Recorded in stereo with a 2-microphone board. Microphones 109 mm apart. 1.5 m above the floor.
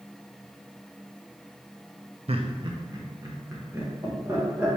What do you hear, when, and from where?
2.3 s laughter: 65° right (ahead or behind), 0.5 m; by 4.8 s 20° right (ahead or behind), 2 m